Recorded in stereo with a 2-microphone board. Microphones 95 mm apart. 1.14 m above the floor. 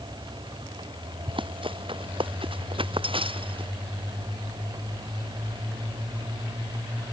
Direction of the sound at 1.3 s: 65° right (ahead or behind).